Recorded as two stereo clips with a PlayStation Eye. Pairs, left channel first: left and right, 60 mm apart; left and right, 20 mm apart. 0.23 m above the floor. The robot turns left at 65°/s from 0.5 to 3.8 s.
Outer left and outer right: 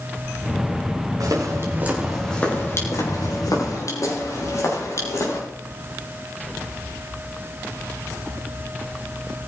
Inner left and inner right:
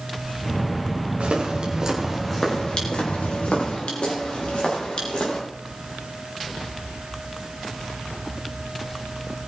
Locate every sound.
1.2 s footsteps: 75° right (ahead or behind), 5 m; by 5.4 s 50° left (ahead or behind), 8 m